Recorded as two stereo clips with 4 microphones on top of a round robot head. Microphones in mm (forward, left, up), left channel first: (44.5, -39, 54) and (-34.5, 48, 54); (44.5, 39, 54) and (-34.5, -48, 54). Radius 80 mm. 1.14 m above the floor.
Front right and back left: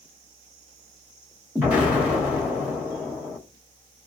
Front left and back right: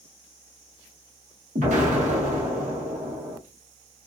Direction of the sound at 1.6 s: 150° right.